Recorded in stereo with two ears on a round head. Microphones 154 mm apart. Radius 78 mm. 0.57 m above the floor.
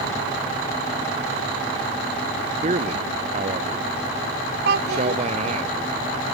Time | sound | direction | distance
2.6 | a man speaking | 40° right (ahead or behind) | ?
4.7 | a child speaking | 75° right (ahead or behind) | ?